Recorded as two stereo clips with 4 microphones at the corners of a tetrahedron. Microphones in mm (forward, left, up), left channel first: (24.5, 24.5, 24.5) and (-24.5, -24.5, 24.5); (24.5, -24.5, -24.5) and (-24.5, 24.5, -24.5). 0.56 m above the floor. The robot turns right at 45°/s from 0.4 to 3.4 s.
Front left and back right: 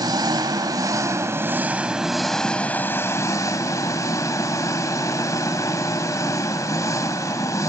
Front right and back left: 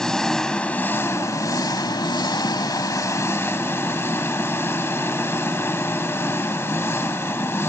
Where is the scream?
No scream in this recording.